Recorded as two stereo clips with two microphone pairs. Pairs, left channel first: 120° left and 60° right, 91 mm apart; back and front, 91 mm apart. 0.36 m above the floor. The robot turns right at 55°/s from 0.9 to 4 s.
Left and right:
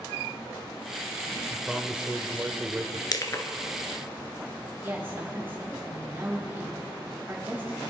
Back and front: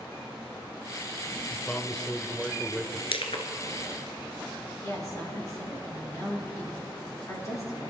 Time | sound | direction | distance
1.5 | a man speaking | 135° right | 0.8 m
3.1 | crushing | 160° left | 1.1 m
4.8 | a woman speaking | 125° right | 4.5 m